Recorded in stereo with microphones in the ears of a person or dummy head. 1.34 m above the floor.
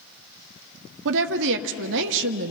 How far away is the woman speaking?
About 1.0 m.